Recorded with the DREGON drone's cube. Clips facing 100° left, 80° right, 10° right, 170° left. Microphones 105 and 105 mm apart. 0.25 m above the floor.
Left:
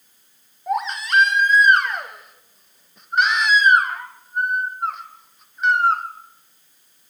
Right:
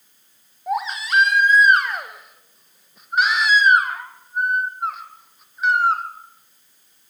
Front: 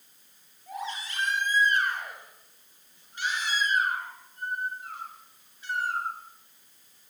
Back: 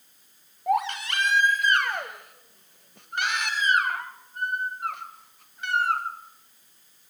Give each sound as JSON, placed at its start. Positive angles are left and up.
{"t": 0.7, "sound": "a baby crying", "azimuth_deg": -165, "distance_m": 2.5}